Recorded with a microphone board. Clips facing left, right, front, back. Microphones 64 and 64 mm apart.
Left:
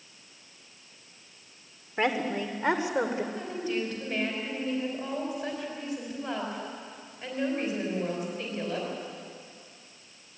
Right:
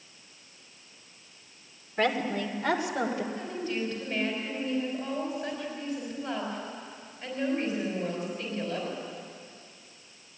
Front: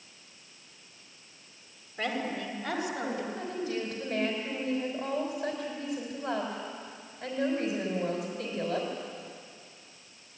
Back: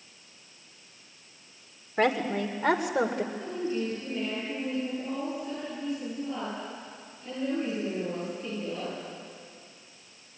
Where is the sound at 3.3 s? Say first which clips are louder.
Left 1 dB, back 2 dB; 10° left, 5 m.